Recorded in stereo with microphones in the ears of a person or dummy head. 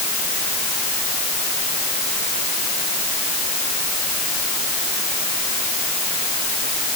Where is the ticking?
No ticking in this recording.